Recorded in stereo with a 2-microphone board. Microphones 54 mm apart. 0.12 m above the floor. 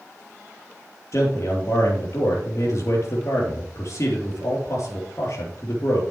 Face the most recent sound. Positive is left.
turn(degrees=60)  # may be behind; listen again after turning